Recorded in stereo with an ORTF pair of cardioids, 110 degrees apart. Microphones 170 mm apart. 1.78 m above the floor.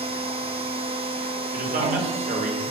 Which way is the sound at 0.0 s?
35° right.